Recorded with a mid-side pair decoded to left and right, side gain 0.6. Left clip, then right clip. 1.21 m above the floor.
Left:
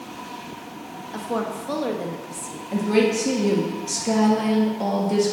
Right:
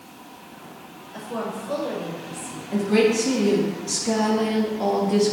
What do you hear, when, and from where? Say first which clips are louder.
1.1 s a woman speaking: left 3 dB; 55° left, 1.6 m
2.7 s a woman speaking: right 1 dB; 15° left, 1.7 m